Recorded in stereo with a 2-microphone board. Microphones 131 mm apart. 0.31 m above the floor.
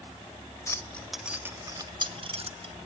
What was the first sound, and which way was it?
Keys jangling, 25° left (ahead or behind).